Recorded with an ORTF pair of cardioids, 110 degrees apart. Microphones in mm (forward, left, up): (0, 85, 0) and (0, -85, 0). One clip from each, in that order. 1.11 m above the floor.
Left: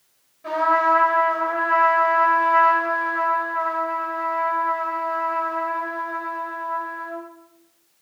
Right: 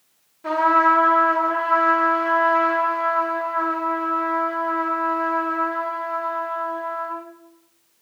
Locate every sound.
0.4 s a trumpet: 25° right, 1.5 m